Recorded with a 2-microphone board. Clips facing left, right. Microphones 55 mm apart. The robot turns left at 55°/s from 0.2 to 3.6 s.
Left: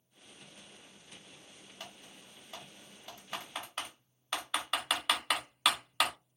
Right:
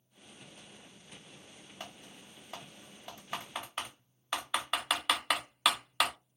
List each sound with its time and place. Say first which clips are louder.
1.8 s typing on a keyboard: right 2 dB; 20° right (ahead or behind), 0.7 m; by 6.1 s 10° right (ahead or behind), 0.7 m